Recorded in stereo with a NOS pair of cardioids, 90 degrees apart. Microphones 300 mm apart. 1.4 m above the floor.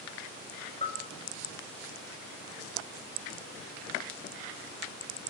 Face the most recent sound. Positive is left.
turn(degrees=20)